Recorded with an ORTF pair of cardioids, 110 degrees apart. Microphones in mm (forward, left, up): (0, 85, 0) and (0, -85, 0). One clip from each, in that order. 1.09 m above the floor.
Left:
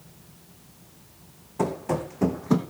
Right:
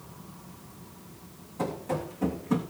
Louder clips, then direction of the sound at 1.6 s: Left 4 dB; 55° left.